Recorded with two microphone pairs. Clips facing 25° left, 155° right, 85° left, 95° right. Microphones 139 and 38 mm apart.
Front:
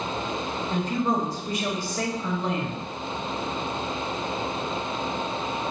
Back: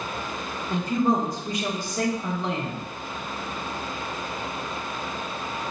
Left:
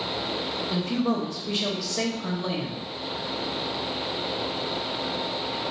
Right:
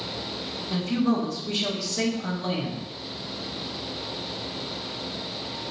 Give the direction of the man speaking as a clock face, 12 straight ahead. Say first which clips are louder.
Back 3 dB, right 2 dB; 7 o'clock.